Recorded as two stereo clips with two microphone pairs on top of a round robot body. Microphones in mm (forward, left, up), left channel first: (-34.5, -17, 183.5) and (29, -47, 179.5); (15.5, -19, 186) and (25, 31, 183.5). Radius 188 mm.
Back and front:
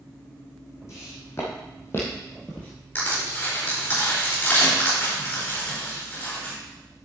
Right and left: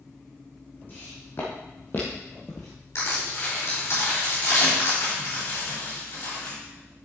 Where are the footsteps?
155° right, 2 m; by 2.7 s 145° right, 0.8 m.